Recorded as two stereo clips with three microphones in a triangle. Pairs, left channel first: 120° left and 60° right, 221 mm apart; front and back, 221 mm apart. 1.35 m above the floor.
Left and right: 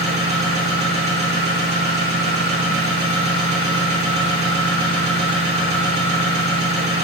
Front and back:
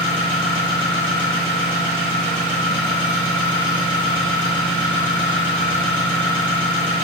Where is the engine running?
55° right, 1.5 m.